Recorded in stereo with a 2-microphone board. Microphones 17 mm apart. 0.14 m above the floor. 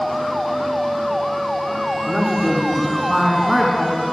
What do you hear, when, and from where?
2.1 s a woman speaking: 20° right (ahead or behind), 1.3 m; by 4.0 s 15° right (ahead or behind), 1.8 m